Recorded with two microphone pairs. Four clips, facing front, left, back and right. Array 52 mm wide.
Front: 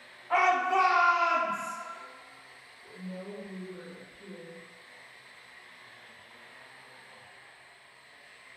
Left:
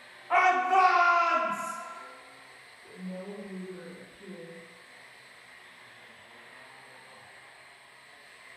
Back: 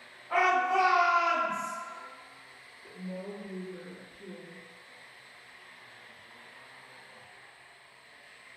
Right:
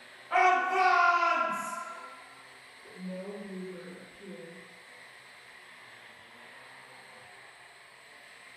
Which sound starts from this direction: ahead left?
A shout, at 0.3 s.